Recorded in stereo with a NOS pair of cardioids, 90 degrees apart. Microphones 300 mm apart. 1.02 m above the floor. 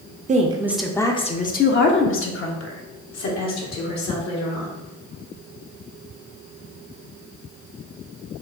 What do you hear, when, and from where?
0.3 s a woman speaking: 25° right, 0.6 m; by 4.8 s 65° left, 2.5 m